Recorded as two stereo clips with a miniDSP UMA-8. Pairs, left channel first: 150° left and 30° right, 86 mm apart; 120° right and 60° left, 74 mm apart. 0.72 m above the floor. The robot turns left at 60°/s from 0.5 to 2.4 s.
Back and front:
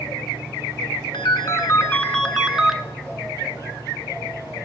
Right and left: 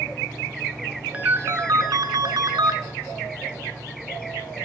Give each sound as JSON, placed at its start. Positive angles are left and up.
{"t": 1.1, "sound": "a ringtone", "azimuth_deg": 130, "distance_m": 0.8}